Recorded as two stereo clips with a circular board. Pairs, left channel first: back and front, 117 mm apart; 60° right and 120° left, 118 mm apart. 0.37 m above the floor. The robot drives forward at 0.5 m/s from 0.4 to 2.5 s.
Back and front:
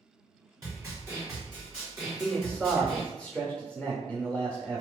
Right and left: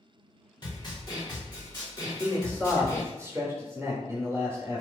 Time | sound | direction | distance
0.6 | a snare drum | 40° right | 1.8 m
2.0 | a man speaking | 75° left | 0.8 m